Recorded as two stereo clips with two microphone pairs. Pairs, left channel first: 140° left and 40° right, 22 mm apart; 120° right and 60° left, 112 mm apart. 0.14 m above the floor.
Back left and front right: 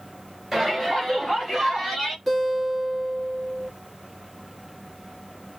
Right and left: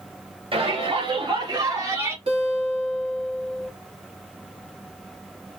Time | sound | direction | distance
0.5 | a shout | 35° left | 2.5 m
2.3 | a guitar | 55° left | 2.0 m